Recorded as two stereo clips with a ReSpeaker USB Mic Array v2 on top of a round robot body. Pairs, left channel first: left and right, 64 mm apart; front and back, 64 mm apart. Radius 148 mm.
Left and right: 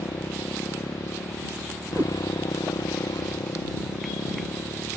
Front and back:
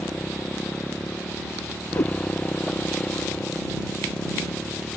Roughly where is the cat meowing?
Ahead right.